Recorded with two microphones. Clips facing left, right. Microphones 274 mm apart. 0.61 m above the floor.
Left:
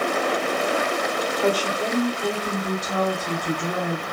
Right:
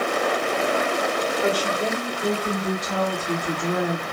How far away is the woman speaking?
About 2 m.